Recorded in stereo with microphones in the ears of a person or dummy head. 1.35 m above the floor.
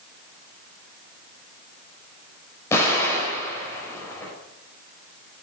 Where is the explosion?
15° left (ahead or behind), 5 m.